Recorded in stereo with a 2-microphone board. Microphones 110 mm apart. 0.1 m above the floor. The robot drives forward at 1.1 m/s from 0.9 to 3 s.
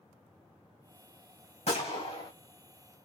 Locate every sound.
1.7 s a gunshot: 75° left (ahead or behind), 3 m; by 2.3 s 60° left (ahead or behind), 3 m